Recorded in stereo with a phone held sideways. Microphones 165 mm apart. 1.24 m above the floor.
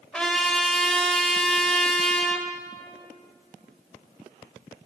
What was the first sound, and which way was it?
A trumpet, 5° left (ahead or behind).